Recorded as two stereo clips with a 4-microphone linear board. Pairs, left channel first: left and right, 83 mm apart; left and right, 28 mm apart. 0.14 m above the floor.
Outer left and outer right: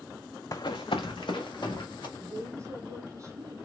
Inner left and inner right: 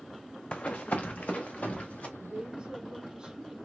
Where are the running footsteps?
45° left (ahead or behind), 0.6 m; by 2.1 s 65° left (ahead or behind), 2.5 m.